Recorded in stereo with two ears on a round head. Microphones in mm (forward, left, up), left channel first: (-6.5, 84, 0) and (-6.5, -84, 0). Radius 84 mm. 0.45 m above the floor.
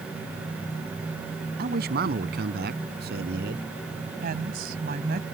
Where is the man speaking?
55° right (ahead or behind); by 3.6 s 60° right (ahead or behind).